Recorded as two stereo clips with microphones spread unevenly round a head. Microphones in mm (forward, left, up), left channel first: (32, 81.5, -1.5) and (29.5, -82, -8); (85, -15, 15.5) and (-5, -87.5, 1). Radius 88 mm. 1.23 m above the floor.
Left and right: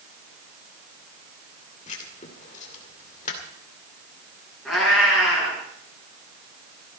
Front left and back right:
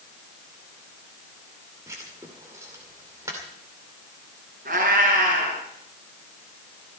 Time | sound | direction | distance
1.9 | writing | 145° left | 2.5 m
4.7 | a cat meowing | straight behind | 5.5 m